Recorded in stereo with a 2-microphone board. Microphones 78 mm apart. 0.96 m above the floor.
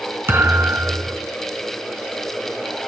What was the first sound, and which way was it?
A thud, 30° right (ahead or behind).